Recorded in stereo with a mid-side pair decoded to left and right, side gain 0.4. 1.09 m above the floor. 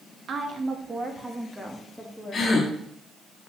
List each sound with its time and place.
0.3 s a woman speaking: 65° right, 1.4 m; by 2.7 s 15° left, 2 m
2.3 s a gasp: 55° left, 1.8 m